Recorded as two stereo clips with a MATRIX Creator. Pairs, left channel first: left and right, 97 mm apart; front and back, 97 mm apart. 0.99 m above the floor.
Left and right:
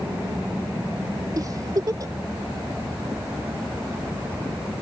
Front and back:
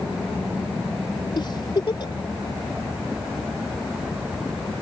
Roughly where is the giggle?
Ahead right.